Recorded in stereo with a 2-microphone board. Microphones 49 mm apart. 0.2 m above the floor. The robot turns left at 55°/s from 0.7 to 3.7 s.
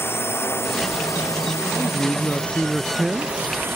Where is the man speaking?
70° left; by 3.8 s 35° right.